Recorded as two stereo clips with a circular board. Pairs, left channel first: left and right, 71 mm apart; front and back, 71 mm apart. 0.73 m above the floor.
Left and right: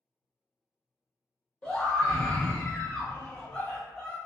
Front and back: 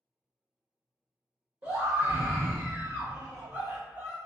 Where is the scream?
150° left, 1.2 m.